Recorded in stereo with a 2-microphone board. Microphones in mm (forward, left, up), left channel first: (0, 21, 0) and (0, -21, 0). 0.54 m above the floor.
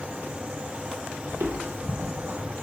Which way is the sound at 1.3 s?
60° right (ahead or behind).